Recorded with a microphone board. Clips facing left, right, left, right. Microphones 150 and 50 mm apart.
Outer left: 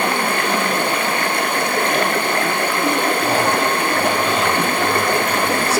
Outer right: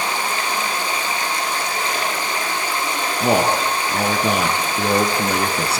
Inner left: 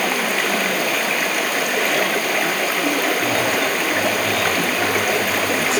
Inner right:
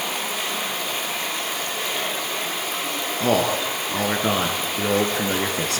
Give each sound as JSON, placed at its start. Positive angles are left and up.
{"t": 0.0, "sound": "running water", "side_deg": 60, "distance_m": 1.9}
{"t": 3.2, "sound": "a man speaking", "side_deg": -65, "distance_m": 4.0}